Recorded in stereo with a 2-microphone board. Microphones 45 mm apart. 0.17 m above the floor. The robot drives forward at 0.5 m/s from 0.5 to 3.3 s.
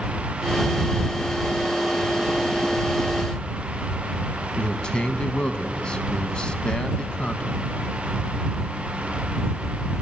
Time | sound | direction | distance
4.6 | a man speaking | 25° left (ahead or behind) | 1.0 m